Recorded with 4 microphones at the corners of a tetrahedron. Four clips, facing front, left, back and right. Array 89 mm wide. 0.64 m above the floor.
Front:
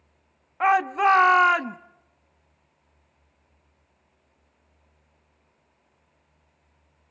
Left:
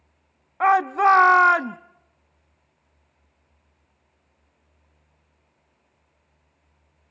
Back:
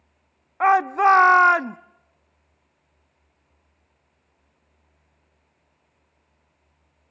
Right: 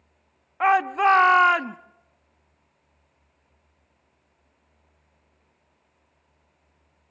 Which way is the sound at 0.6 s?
140° left.